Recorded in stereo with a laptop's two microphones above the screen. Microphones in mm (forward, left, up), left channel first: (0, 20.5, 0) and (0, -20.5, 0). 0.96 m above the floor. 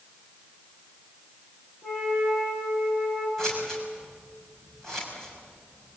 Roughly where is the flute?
Centre.